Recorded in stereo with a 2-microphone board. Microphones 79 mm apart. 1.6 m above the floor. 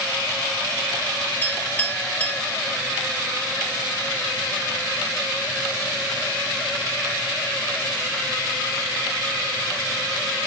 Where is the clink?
20° left (ahead or behind), 5.5 m.